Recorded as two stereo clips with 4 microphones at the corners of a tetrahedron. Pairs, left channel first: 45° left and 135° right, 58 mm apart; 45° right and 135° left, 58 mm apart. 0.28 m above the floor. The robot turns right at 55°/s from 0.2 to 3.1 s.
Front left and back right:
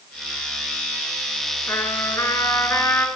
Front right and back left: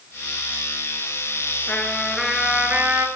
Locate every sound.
1.7 s a trumpet: 15° left, 1.8 m; by 3.1 s 90° left, 1.8 m